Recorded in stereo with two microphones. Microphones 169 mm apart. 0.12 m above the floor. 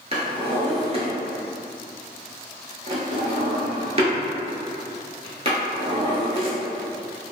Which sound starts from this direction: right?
A drawer, at 0.1 s.